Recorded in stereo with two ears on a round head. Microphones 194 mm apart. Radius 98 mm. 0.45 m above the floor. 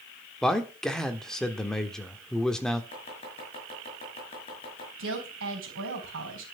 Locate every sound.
0.4 s a man speaking: 5° left (ahead or behind), 1.2 m
2.9 s chopping: 25° left (ahead or behind), 5.5 m
5.0 s a woman speaking: 65° right (ahead or behind), 4 m